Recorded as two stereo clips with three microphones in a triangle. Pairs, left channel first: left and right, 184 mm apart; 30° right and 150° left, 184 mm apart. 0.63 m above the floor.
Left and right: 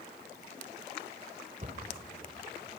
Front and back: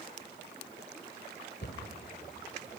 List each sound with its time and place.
1.6 s a cupboard door: 45° right, 2.5 m